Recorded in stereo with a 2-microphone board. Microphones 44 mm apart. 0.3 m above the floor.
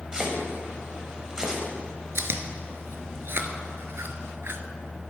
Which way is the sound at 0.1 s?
15° right (ahead or behind).